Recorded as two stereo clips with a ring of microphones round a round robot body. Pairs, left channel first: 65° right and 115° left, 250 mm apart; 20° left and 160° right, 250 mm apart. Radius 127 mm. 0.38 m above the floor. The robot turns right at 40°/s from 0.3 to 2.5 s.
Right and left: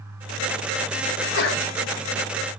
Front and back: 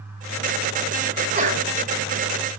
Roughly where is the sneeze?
Right.